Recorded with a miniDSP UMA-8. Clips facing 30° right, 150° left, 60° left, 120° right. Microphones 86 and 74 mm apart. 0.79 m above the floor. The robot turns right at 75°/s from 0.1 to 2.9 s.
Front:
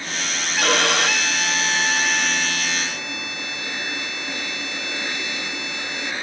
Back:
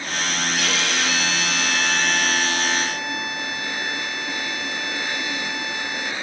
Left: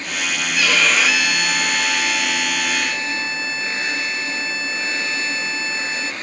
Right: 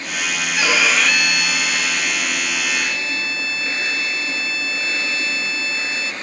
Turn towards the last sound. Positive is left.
turn(degrees=115)